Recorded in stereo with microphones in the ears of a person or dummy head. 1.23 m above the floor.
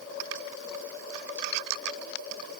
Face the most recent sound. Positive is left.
No sound to turn to.